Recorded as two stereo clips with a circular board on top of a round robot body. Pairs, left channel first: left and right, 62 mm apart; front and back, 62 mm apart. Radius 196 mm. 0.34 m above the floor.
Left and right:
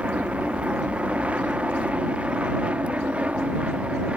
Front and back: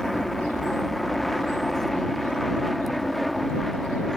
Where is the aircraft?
85° right.